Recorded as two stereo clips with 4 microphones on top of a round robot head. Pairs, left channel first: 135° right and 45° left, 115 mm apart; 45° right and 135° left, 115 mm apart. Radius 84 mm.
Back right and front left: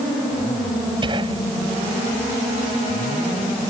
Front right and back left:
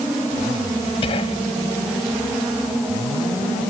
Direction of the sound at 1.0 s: 5° right.